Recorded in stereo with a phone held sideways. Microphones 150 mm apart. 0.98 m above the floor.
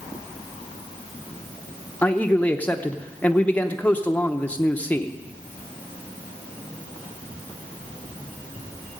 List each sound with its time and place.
2.0 s a man speaking: 10° left (ahead or behind), 0.7 m